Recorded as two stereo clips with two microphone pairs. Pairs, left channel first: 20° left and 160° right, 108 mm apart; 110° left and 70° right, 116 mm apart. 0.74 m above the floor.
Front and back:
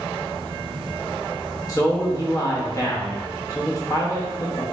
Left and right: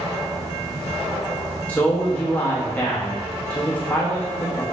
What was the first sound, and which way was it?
A man speaking, 45° left.